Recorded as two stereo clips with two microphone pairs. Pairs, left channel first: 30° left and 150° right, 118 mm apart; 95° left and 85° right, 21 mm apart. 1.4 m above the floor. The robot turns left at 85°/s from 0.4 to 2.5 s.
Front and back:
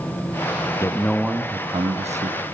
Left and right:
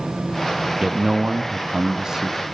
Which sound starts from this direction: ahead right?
A man speaking, at 0.8 s.